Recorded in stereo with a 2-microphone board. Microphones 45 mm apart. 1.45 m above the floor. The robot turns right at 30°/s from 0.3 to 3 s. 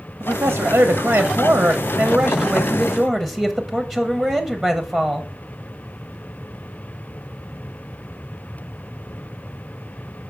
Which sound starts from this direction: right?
A man speaking, at 0.2 s.